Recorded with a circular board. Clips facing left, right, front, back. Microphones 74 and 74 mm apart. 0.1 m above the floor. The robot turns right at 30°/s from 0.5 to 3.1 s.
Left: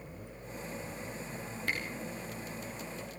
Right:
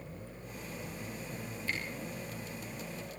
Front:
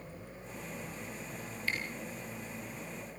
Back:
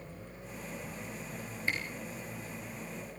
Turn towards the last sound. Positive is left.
turn(degrees=160)